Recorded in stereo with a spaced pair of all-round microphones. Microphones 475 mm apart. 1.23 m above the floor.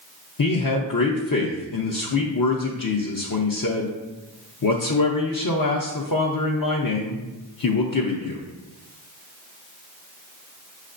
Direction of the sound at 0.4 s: 45° left (ahead or behind).